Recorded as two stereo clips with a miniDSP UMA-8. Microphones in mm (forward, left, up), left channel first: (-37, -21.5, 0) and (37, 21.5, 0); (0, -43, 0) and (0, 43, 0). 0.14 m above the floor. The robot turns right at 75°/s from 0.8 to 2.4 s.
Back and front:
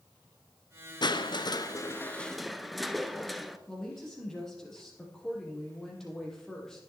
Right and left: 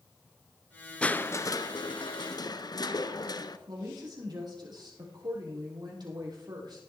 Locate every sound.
1.0 s crushing: 165° right, 0.7 m; by 3.6 s 60° right, 0.7 m
3.7 s a woman speaking: 125° left, 4 m